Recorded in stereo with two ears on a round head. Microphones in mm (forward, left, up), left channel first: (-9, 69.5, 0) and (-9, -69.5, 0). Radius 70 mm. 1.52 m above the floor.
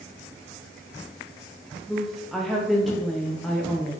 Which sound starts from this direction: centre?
A woman speaking, at 1.9 s.